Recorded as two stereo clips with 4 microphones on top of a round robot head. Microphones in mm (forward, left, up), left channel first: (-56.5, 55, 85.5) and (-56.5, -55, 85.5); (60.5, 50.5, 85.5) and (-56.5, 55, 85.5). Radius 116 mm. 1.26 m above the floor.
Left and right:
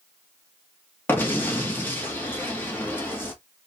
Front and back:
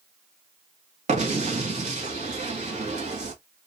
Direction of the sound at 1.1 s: 165° left.